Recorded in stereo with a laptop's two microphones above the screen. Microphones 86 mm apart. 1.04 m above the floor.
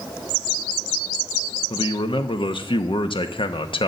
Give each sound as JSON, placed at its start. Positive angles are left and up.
{"t": 1.7, "sound": "a man speaking", "side_deg": 80, "distance_m": 1.0}